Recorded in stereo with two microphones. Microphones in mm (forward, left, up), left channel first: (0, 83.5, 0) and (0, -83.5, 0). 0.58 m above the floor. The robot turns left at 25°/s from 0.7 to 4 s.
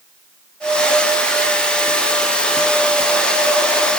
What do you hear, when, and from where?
Only background noise.